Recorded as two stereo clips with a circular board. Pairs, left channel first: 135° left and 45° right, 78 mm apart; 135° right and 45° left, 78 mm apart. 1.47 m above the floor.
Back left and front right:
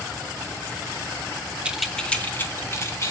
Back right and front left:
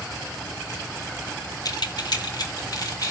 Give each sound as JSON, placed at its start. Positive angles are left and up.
{"t": 1.6, "sound": "keys jangling", "azimuth_deg": -115, "distance_m": 1.0}